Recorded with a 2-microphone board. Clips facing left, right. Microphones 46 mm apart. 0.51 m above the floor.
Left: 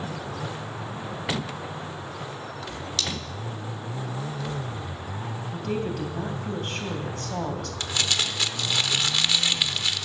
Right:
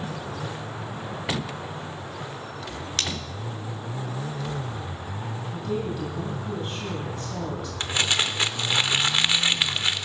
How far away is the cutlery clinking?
About 1.5 m.